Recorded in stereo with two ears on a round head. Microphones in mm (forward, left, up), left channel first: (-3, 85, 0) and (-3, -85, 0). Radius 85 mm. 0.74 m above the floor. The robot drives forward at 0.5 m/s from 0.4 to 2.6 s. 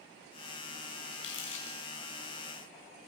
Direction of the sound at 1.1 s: 65° left (ahead or behind).